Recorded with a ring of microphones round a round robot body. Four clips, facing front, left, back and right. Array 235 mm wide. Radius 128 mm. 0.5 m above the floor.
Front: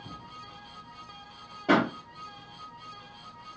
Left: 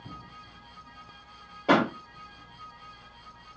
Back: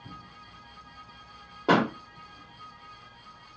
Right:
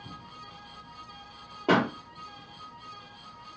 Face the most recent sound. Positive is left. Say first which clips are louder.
# left 1 dB, back 1 dB
turn(degrees=-150)